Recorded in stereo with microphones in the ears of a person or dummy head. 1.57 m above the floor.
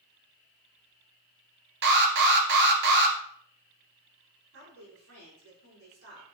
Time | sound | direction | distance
1.8 | an alarm | 55° right (ahead or behind) | 1.6 m
4.5 | a woman speaking | 85° right | 4.5 m